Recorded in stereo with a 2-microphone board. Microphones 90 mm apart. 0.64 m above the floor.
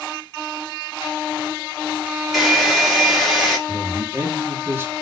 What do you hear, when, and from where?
2.3 s a hair dryer: 5° right (ahead or behind), 1.4 m
3.7 s a man speaking: 25° right (ahead or behind), 1.0 m